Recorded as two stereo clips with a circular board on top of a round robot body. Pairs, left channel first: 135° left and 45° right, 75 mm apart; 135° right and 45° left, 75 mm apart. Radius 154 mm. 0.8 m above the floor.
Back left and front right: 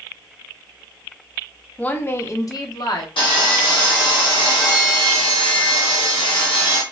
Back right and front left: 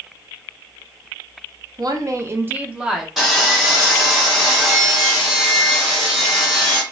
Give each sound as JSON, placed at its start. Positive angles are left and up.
{"t": 1.8, "sound": "a woman speaking", "azimuth_deg": 65, "distance_m": 0.7}
{"t": 3.2, "sound": "sawing", "azimuth_deg": 130, "distance_m": 0.9}